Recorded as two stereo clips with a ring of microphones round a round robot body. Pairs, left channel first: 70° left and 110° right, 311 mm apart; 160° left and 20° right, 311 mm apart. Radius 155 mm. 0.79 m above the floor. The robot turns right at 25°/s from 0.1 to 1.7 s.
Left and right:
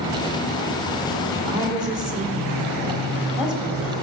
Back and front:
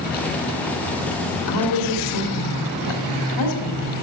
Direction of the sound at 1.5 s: 155° left.